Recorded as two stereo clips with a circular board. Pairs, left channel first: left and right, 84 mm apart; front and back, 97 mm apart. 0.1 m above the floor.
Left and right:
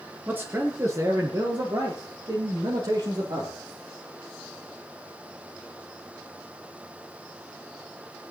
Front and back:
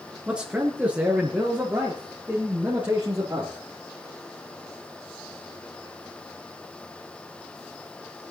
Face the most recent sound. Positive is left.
turn(degrees=-105)